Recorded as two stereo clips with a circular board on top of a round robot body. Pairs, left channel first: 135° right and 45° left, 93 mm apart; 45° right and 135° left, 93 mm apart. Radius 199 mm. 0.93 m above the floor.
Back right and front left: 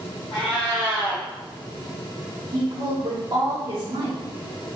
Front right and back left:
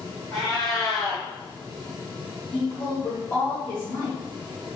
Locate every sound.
0.3 s a cat meowing: 100° right, 0.7 m
2.5 s a woman speaking: 15° left, 1.6 m